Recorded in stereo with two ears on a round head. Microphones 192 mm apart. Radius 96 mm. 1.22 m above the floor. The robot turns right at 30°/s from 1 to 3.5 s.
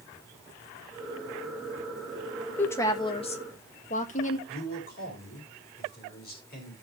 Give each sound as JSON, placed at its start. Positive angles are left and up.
{"t": 2.6, "sound": "a woman speaking", "side_deg": 10, "distance_m": 1.4}
{"t": 4.5, "sound": "a man speaking", "side_deg": 45, "distance_m": 5.5}